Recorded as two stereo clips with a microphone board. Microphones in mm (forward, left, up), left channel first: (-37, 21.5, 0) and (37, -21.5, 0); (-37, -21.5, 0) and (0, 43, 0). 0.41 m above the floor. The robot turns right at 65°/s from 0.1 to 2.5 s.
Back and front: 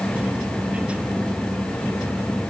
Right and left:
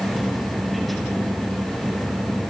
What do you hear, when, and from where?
Only background noise.